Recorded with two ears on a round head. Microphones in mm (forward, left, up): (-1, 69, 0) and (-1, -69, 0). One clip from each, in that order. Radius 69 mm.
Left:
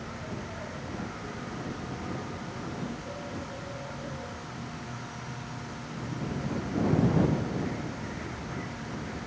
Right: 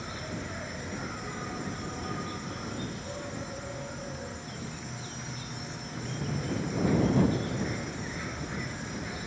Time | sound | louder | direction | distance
0.0 | an insect | right 1 dB | 75° right (ahead or behind) | ?